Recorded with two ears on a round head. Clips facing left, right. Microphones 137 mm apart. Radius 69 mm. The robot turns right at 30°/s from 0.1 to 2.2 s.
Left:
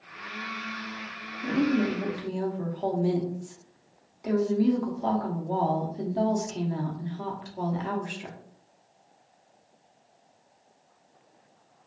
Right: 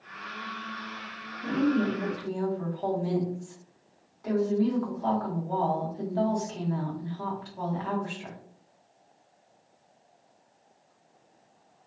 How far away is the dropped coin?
I don't hear a dropped coin.